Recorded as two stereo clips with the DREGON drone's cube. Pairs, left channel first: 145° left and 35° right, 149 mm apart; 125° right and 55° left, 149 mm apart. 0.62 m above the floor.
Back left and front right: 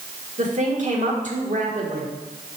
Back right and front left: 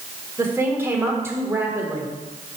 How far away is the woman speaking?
About 1.5 m.